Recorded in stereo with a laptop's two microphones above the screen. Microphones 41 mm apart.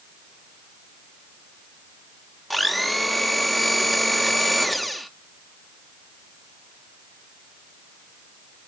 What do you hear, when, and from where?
2.5 s a blender: centre (ahead or behind), 0.6 m